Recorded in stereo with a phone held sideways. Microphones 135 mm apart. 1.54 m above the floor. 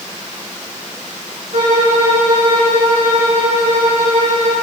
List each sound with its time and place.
1.5 s a violin: 85° right, 4 m